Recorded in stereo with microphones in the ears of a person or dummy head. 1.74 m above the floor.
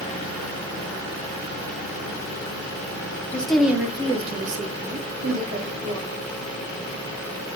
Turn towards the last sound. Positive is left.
turn(degrees=-65)  # may be behind; listen again after turning